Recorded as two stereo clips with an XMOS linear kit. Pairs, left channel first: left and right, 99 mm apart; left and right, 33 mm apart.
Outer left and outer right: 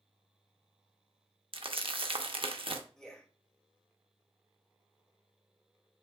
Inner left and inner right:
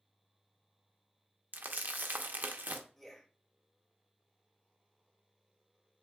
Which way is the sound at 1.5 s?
65° right (ahead or behind).